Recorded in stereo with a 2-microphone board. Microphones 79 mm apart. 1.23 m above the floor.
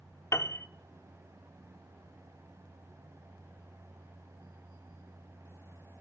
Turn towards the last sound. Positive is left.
turn(degrees=35)  # may be behind; listen again after turning